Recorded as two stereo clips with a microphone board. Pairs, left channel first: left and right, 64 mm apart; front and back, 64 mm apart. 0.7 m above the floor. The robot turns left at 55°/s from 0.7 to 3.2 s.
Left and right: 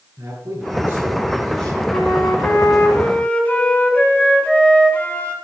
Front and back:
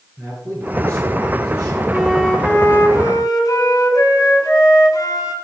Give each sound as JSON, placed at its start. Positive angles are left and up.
{"t": 0.2, "sound": "a man speaking", "azimuth_deg": -145, "distance_m": 7.0}
{"t": 1.9, "sound": "a flute", "azimuth_deg": 95, "distance_m": 1.9}